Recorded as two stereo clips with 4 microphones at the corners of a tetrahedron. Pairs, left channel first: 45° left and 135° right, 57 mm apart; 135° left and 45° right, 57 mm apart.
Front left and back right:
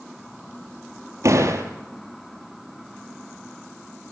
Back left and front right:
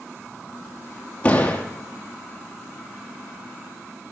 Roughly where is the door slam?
Behind.